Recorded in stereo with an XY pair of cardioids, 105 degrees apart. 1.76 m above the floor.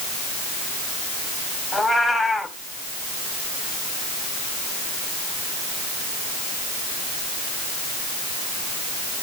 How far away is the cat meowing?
About 5 m.